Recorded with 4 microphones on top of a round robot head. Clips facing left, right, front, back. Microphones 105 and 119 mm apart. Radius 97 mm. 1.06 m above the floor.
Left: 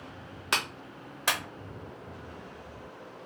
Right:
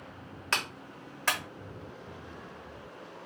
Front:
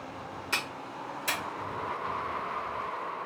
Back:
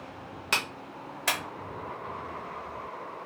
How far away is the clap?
About 1.0 m.